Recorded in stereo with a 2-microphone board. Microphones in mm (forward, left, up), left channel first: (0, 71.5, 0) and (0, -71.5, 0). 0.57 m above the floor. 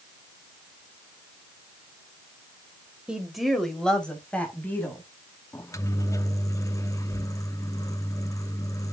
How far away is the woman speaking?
About 2 m.